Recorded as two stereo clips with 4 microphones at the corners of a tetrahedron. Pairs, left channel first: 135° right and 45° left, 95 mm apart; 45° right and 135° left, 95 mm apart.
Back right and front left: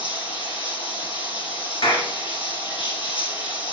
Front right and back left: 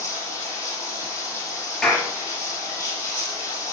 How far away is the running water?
About 4.5 m.